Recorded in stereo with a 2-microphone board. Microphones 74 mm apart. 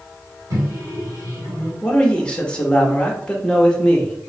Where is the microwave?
50° right (ahead or behind), 1.7 m.